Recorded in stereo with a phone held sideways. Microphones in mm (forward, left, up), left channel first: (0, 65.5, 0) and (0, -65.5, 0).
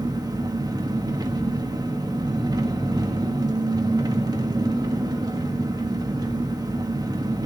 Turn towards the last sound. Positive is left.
turn(degrees=-30)  # may be behind; listen again after turning